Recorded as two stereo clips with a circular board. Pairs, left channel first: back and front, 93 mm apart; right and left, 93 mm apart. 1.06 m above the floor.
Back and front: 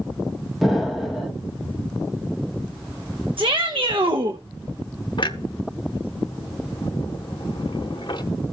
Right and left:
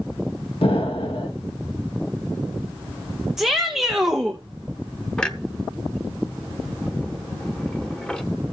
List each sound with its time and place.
0.6 s an explosion: 85° right, 1.7 m
3.4 s a shout: 5° left, 0.9 m
5.2 s a clunk: 170° right, 0.9 m